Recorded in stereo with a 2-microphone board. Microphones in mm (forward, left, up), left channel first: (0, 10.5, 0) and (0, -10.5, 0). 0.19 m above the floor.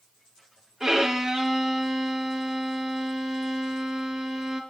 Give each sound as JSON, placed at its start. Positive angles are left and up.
{"t": 0.8, "sound": "a violin", "side_deg": -25, "distance_m": 5.0}